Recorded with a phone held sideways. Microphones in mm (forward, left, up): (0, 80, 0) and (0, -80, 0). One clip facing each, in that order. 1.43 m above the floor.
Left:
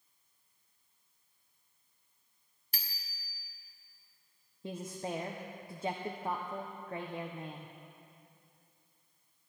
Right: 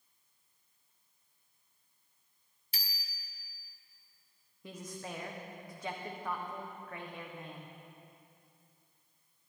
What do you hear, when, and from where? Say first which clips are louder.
2.7 s a bicycle bell: right 2 dB; 50° left (ahead or behind), 2 m
4.6 s a woman speaking: left 5 dB; 30° left (ahead or behind), 0.9 m